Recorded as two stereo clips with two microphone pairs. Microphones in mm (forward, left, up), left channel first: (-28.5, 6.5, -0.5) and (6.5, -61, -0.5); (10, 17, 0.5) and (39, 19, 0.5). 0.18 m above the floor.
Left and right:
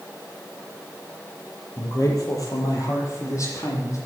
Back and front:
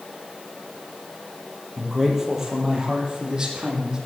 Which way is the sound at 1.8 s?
85° left.